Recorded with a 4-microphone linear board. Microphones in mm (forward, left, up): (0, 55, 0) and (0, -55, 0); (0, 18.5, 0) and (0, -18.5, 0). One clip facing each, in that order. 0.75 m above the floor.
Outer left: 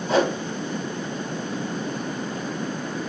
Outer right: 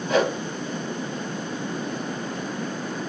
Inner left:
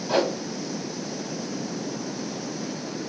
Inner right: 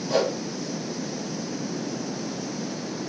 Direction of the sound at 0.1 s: 30° left (ahead or behind).